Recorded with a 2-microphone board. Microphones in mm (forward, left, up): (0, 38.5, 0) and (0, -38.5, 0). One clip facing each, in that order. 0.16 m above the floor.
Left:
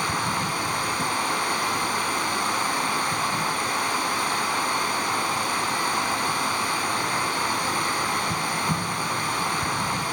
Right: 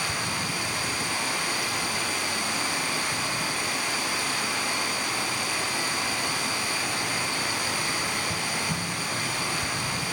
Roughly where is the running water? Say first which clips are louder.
Left 5 dB; left.